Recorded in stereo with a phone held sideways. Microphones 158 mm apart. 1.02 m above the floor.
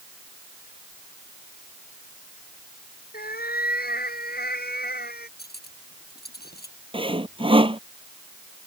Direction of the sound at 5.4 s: 90° left.